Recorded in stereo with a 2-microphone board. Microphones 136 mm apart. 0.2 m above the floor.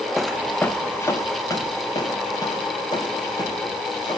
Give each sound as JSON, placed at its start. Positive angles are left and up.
{"t": 0.2, "sound": "footsteps", "side_deg": -5, "distance_m": 0.7}